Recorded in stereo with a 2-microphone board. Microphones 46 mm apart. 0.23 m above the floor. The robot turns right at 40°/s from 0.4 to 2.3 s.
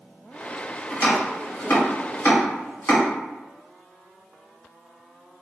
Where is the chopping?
30° left (ahead or behind), 1.9 m; by 3.0 s 50° left (ahead or behind), 1.9 m.